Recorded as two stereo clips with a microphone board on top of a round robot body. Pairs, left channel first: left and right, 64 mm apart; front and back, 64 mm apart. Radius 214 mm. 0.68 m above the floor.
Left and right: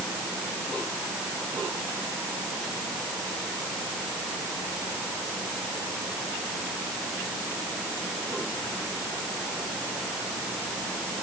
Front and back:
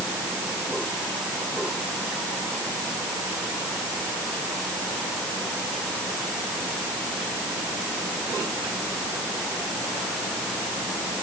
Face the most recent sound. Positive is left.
No sound to turn to.